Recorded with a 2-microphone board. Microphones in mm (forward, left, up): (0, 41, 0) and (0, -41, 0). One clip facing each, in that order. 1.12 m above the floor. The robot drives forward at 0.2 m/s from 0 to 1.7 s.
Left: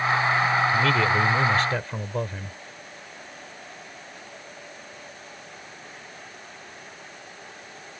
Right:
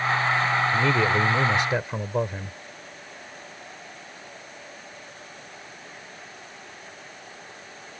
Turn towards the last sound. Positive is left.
turn(degrees=-15)  # may be behind; listen again after turning